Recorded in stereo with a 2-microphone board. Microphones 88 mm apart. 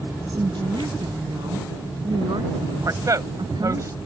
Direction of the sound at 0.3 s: 65° right (ahead or behind).